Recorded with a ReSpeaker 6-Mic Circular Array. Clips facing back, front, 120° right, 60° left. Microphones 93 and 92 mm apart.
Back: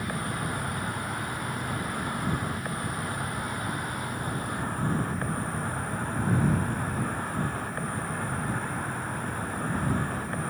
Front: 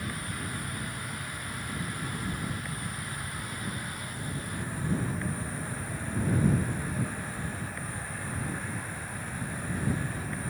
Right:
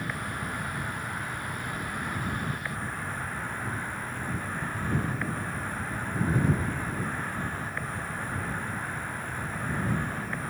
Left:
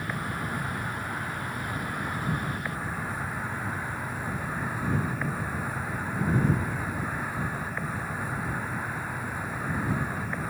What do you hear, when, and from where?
0.0 s an insect: 140° left